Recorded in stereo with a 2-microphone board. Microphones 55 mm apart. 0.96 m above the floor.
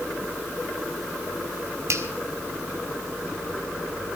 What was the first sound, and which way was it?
A finger snap, 60° right (ahead or behind).